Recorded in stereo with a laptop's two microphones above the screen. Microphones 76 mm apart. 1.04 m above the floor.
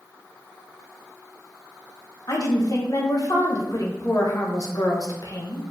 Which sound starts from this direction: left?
A woman speaking, at 2.3 s.